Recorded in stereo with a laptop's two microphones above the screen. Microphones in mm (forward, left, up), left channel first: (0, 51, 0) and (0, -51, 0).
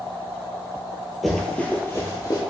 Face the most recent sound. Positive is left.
turn(degrees=40)  # may be behind; listen again after turning